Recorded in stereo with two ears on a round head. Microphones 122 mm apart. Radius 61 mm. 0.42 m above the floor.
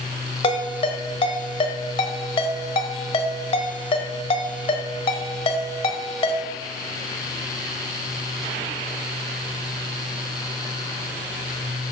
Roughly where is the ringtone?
Left.